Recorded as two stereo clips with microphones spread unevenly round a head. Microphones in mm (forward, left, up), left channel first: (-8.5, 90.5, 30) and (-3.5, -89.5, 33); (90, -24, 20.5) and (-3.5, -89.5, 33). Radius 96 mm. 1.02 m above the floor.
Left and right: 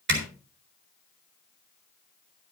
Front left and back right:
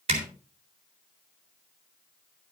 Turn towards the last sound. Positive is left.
turn(degrees=-115)